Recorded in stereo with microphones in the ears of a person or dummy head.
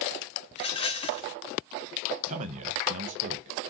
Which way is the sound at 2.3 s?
35° right (ahead or behind).